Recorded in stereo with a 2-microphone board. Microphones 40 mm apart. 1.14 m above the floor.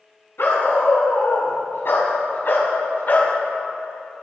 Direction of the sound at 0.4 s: 75° left (ahead or behind).